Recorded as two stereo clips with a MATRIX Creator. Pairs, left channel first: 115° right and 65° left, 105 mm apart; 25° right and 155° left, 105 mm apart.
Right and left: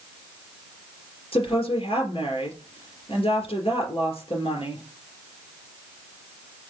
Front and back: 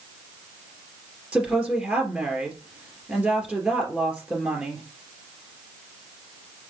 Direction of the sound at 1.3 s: 125° right.